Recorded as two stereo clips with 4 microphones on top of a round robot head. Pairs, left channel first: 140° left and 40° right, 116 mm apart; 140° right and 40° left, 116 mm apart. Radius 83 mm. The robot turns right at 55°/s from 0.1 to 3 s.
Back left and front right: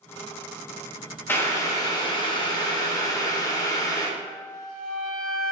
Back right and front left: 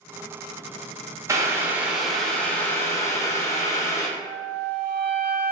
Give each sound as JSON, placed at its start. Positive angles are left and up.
{"t": 1.3, "sound": "boiling", "azimuth_deg": 80, "distance_m": 0.6}
{"t": 4.2, "sound": "a flute", "azimuth_deg": 160, "distance_m": 0.9}